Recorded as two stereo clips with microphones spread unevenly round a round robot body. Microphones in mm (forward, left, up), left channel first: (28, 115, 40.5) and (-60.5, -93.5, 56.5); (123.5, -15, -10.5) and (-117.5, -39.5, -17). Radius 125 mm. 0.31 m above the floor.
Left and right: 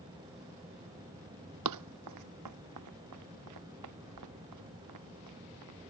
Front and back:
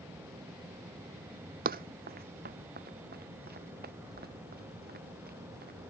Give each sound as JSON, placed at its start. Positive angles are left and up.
{"t": 1.6, "sound": "running footsteps", "azimuth_deg": -120}